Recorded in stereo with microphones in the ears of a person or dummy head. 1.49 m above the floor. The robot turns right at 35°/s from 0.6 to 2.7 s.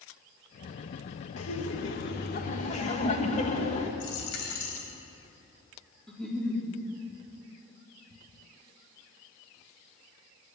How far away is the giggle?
About 4 m.